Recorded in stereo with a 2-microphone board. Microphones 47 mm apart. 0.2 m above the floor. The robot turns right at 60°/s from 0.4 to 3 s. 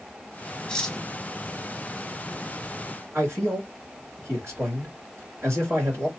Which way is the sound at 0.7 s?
20° left (ahead or behind).